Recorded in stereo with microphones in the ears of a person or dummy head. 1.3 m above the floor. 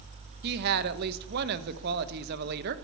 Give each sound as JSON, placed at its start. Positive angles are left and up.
{"t": 0.4, "sound": "a woman speaking", "side_deg": -55, "distance_m": 1.1}